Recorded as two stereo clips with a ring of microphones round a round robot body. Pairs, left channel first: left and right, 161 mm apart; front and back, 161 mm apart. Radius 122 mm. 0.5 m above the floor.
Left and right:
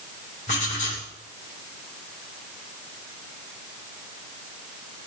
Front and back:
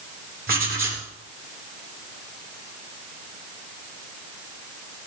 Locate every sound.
0.5 s writing: 150° left, 3.5 m